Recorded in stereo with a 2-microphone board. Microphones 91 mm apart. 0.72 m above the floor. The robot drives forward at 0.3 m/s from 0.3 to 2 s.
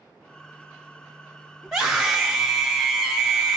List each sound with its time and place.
1.6 s a scream: centre (ahead or behind), 1.6 m